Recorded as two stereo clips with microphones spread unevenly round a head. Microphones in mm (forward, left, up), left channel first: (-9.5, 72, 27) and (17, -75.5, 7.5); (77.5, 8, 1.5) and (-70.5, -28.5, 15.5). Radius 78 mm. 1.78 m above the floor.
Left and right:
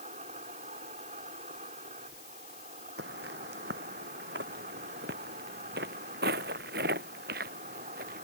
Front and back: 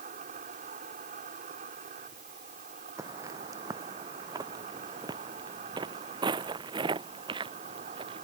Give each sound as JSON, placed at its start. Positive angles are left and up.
{"t": 0.0, "sound": "an insect", "azimuth_deg": -130}
{"t": 3.0, "sound": "footsteps", "azimuth_deg": -100}